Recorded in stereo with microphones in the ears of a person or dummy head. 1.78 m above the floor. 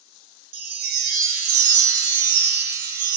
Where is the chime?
50° right (ahead or behind), 0.7 m.